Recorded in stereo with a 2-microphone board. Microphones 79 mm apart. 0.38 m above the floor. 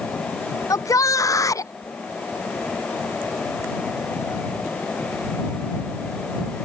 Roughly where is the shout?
Left.